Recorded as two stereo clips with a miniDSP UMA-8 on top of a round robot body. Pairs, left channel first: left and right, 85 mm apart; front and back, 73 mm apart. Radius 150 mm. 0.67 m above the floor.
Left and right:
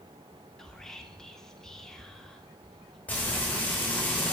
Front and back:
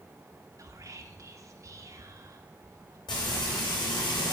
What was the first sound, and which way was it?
Whispering, 170° left.